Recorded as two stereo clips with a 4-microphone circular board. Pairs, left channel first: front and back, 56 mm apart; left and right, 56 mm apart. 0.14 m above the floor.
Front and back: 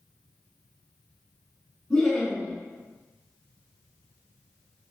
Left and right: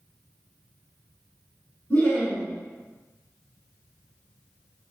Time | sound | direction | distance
1.9 | laughter | 70° left | 1.2 m